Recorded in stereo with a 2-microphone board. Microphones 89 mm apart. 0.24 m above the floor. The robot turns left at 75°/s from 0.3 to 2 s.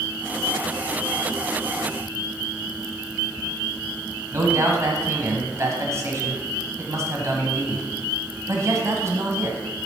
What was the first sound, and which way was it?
A man speaking, 35° right (ahead or behind).